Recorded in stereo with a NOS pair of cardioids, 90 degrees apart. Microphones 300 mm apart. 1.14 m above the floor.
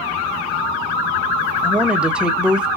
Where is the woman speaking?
5° right, 1.2 m.